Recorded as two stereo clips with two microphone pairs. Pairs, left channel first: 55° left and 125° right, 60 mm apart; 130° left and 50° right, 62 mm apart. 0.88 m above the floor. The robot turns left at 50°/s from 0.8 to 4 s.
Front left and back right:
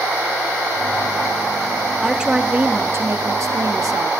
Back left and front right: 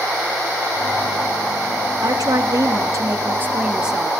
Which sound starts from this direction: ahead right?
A woman speaking, at 2.0 s.